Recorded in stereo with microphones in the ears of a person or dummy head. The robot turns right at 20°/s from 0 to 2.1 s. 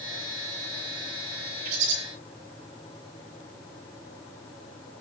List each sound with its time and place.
1.6 s a bird: 45° right (ahead or behind), 2 m; by 2.0 s 40° right (ahead or behind), 2 m